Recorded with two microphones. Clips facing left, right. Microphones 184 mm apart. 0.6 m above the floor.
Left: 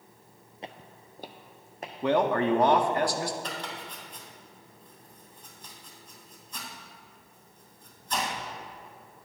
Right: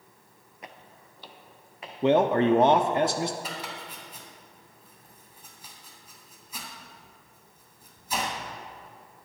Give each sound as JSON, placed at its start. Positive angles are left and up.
{"t": 0.6, "sound": "footsteps", "side_deg": 25, "distance_m": 0.6}
{"t": 2.0, "sound": "a man speaking", "side_deg": -25, "distance_m": 0.6}
{"t": 3.4, "sound": "chopping", "side_deg": -5, "distance_m": 2.5}